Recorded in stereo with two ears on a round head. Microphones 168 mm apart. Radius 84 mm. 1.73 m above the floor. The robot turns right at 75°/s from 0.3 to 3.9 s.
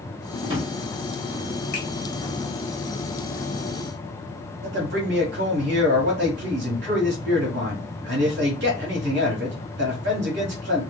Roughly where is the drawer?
Right.